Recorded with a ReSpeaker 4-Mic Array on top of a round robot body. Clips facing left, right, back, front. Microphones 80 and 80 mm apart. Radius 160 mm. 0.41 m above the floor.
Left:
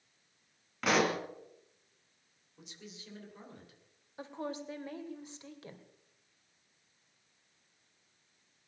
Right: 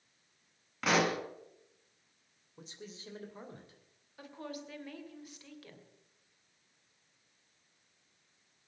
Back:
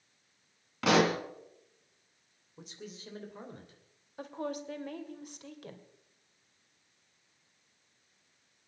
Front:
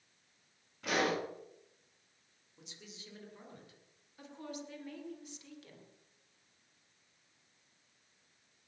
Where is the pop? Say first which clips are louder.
Even, back 7 dB; straight behind, 2.5 m.